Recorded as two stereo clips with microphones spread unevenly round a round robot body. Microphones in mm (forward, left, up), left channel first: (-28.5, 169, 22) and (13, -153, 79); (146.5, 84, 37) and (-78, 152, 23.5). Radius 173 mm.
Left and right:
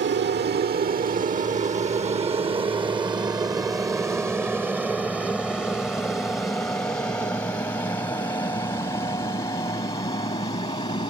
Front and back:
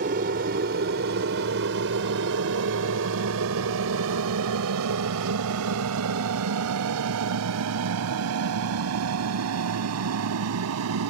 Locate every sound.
0.0 s an aircraft: 140° right; by 11.1 s 175° left